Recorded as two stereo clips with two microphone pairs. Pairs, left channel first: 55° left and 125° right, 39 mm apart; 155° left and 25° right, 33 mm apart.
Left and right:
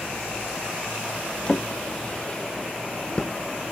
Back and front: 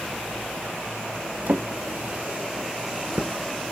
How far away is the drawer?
About 0.6 m.